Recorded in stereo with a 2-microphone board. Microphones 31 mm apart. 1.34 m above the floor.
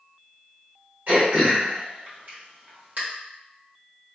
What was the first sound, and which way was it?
Throat clearing, 55° right (ahead or behind).